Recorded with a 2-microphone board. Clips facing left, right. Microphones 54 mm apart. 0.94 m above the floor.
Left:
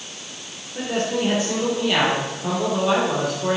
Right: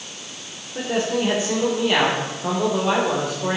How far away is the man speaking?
About 3.5 m.